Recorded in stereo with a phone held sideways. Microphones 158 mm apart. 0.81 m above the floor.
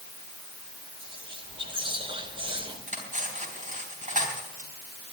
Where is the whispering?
30° right (ahead or behind), 3.5 m.